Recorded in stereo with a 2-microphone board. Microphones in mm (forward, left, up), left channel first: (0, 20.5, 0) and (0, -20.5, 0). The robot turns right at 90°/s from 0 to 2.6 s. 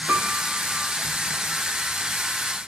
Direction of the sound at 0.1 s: 60° right.